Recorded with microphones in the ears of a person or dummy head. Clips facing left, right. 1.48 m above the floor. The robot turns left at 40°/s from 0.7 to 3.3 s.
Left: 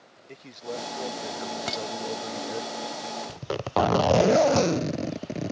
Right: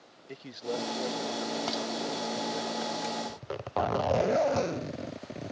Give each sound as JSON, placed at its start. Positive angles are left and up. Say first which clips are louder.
{"t": 0.3, "sound": "a man speaking", "louder": "right 1 dB", "azimuth_deg": -170}
{"t": 1.7, "sound": "dishes clattering", "louder": "left 1 dB", "side_deg": 25}
{"t": 3.3, "sound": "a zipper", "louder": "left 6 dB", "side_deg": 60}